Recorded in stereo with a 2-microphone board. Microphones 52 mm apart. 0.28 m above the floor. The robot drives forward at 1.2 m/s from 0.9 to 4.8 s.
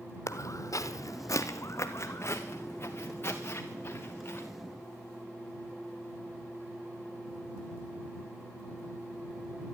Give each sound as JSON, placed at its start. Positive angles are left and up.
{"t": 0.3, "sound": "footsteps", "side_deg": 65, "distance_m": 0.7}